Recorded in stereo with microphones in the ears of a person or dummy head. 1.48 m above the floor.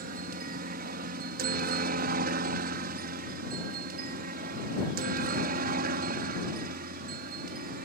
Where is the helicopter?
50° right (ahead or behind); by 7.9 s 55° right (ahead or behind).